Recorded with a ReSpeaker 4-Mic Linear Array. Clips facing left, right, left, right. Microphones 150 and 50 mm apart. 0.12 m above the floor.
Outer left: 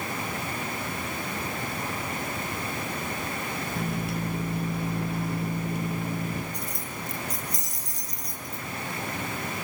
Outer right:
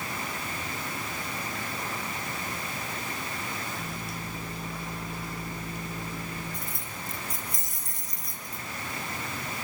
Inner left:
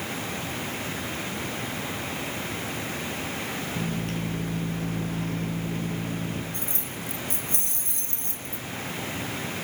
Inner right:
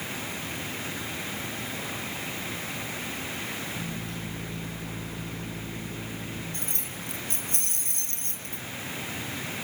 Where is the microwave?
65° left (ahead or behind), 2 m.